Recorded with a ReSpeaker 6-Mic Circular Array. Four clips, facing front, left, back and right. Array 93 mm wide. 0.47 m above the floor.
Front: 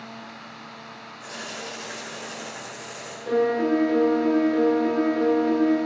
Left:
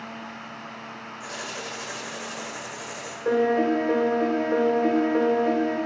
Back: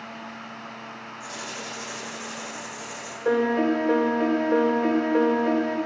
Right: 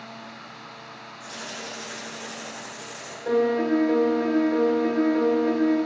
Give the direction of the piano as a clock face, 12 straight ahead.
7 o'clock.